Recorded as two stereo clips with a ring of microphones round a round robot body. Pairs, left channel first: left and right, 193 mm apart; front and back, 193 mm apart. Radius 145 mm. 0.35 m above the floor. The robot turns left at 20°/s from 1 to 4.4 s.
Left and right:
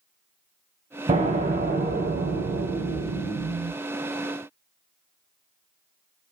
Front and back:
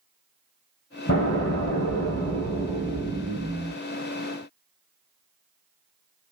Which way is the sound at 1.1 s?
35° right.